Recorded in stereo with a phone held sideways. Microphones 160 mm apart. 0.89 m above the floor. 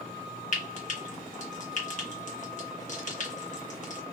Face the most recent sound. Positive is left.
turn(degrees=50)  # may be behind; listen again after turning